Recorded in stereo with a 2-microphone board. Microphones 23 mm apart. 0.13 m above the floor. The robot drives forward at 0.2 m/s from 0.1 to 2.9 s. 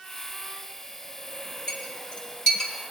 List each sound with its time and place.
1.7 s a clink: 35° left (ahead or behind), 2.5 m